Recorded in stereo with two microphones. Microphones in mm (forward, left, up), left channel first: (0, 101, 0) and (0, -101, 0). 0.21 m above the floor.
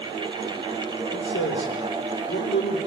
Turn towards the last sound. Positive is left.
turn(degrees=75)  # may be behind; listen again after turning